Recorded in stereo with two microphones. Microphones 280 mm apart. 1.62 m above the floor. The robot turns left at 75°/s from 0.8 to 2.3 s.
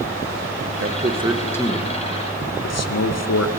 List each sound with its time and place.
0.8 s a man speaking: 50° right (ahead or behind), 0.7 m; by 3.5 s 65° left (ahead or behind), 0.7 m